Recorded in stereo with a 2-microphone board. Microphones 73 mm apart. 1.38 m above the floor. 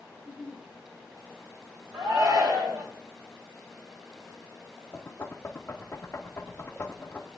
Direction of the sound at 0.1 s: 65° right (ahead or behind).